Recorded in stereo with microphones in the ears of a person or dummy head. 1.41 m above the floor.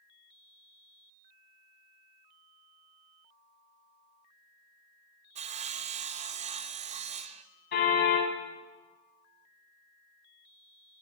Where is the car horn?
60° left (ahead or behind), 6.5 m.